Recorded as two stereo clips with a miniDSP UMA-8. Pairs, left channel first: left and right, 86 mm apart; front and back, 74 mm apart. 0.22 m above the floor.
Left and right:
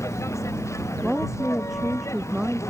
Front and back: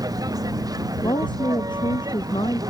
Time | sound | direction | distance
0.0 | a vehicle | 145° left | ?
1.0 | a woman speaking | 5° right | ?